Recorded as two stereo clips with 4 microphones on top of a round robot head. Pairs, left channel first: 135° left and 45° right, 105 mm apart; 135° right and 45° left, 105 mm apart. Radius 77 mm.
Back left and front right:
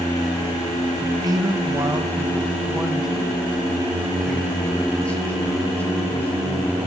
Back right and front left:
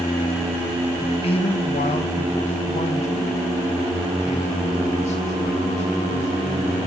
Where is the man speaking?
95° right, 1.4 m; by 6.9 s 155° right, 4 m.